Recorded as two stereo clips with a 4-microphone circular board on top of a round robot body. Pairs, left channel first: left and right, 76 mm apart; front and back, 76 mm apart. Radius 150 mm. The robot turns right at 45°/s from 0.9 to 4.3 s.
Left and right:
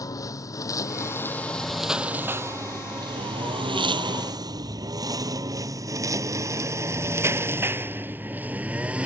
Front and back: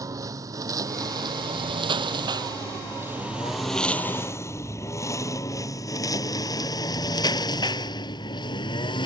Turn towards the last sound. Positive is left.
turn(degrees=-15)